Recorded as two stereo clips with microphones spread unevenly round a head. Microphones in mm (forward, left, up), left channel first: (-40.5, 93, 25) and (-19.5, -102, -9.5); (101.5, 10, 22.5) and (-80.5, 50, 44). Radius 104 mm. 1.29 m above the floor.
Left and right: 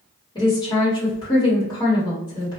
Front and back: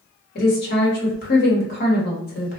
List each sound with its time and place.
0.3 s a woman speaking: 25° left, 1.1 m